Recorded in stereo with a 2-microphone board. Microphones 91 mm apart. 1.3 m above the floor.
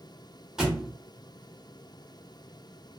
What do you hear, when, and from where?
0.6 s a thud: 5° right (ahead or behind), 0.9 m